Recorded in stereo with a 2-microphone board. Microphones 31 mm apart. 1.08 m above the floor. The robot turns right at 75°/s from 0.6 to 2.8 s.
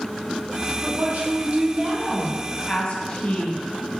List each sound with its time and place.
0.8 s a woman speaking: 100° right, 1.5 m; by 3.6 s 45° left, 1.5 m